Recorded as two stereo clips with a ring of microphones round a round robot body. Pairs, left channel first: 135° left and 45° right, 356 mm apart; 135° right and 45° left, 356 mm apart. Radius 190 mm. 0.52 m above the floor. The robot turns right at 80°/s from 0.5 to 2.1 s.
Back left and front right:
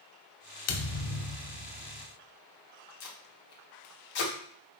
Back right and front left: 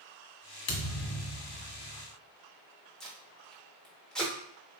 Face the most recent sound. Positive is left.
turn(degrees=135)